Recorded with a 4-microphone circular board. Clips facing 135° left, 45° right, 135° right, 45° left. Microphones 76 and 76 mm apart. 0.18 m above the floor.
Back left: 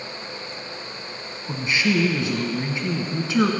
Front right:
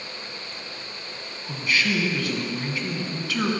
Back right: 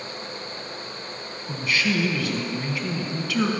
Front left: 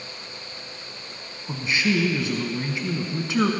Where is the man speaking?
90° left, 1.5 m.